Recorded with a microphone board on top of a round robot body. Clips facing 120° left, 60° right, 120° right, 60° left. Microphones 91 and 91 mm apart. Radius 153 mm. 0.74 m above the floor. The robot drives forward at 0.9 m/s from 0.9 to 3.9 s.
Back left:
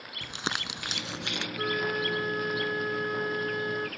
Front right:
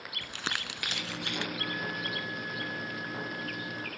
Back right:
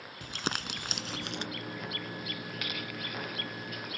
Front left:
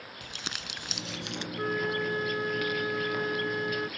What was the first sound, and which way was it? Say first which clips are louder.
Crumpling: back left 3 dB, back right 7 dB; 170° right.